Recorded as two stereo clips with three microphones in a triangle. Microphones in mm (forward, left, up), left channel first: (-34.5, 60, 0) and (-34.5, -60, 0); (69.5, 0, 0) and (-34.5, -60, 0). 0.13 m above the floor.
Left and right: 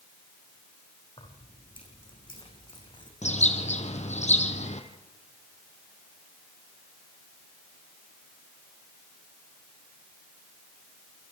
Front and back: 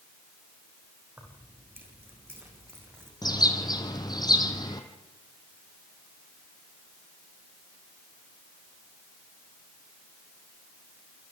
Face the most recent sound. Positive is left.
turn(degrees=85)